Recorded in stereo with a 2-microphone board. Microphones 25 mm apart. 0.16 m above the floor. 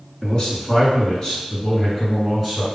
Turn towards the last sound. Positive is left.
turn(degrees=5)  # may be behind; listen again after turning